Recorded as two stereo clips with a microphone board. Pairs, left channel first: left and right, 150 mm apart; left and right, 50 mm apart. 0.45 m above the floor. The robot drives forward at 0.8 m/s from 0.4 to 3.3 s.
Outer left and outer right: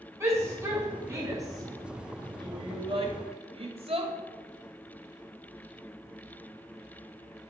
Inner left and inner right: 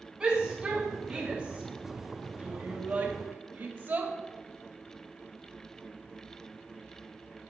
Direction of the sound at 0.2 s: 15° right (ahead or behind).